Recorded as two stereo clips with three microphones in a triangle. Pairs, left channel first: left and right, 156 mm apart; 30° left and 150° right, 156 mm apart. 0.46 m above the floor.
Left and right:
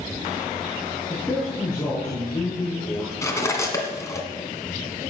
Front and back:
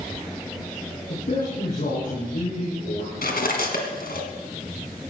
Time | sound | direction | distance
1.1 | a man speaking | 5° left | 6 m
3.2 | cutlery clinking | 20° left | 2.5 m